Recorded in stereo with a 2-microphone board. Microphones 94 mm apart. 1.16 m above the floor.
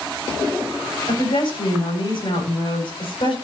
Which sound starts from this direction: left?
A woman speaking, at 1.1 s.